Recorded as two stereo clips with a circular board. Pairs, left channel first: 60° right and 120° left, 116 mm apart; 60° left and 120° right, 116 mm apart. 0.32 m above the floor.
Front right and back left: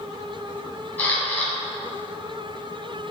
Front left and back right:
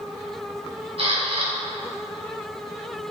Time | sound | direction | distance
1.0 | a camera shutter | 135° right | 2.5 m